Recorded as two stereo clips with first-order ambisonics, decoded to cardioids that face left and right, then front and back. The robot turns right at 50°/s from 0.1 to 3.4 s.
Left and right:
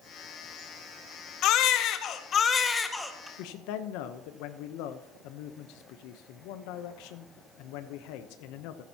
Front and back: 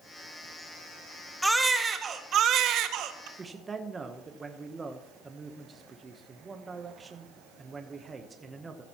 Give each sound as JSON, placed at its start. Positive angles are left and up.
{"t": 1.4, "sound": "a baby crying", "azimuth_deg": 90, "distance_m": 0.7}
{"t": 3.4, "sound": "a man speaking", "azimuth_deg": 105, "distance_m": 0.8}